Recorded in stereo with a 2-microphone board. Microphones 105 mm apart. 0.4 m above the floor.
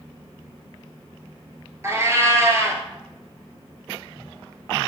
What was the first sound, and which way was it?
A cat meowing, 25° right (ahead or behind).